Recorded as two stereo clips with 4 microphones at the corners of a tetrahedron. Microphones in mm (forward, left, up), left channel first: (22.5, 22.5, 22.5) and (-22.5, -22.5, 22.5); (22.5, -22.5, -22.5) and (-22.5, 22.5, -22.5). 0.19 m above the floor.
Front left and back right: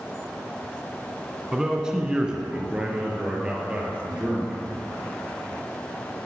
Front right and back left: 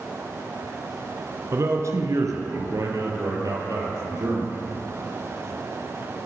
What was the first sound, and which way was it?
A man speaking, 150° left.